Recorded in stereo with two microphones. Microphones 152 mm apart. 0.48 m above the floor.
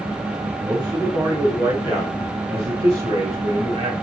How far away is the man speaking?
About 5.5 m.